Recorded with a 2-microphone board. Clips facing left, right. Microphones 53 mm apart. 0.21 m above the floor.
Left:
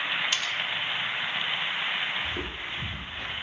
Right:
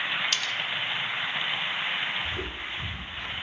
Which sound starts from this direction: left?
Footsteps, at 2.2 s.